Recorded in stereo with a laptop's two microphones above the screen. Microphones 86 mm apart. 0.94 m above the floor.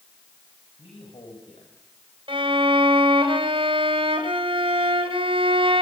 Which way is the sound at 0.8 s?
80° left.